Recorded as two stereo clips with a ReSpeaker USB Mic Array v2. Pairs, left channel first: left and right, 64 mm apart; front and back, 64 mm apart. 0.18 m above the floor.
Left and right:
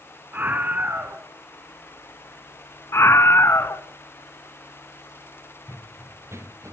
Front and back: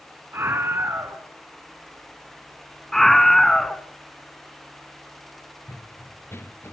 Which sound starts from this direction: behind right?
A scream, at 0.3 s.